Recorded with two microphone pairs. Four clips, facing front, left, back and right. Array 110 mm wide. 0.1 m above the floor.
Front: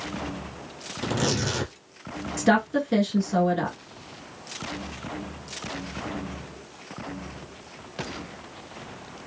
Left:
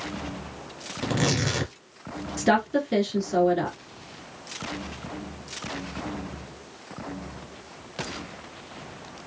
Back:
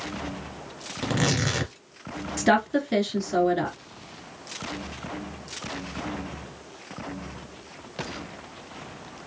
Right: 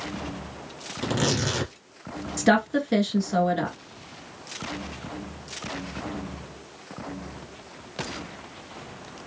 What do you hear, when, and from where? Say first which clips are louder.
1.0 s tearing paper: even, even; 170° right, 1.4 m
2.4 s a woman speaking: right 1 dB, even; 125° right, 1.1 m